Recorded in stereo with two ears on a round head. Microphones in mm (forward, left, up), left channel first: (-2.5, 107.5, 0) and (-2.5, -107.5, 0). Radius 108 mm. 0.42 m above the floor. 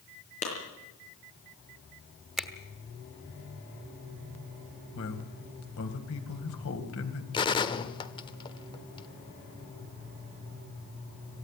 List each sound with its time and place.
0.4 s a clap: 30° left (ahead or behind), 6.5 m
2.4 s a finger snap: centre (ahead or behind), 1.3 m
5.0 s a man speaking: 65° left (ahead or behind), 2.5 m
7.3 s a gunshot: 20° left (ahead or behind), 0.9 m